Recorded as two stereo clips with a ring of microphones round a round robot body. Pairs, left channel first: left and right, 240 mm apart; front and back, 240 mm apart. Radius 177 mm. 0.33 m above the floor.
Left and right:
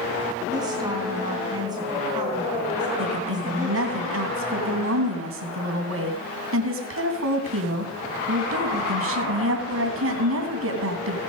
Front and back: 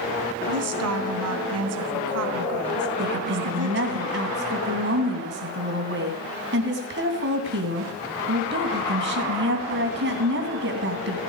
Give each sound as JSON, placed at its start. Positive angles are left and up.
{"t": 0.5, "sound": "a woman speaking", "azimuth_deg": -165, "distance_m": 3.0}
{"t": 3.0, "sound": "a woman speaking", "azimuth_deg": -130, "distance_m": 3.0}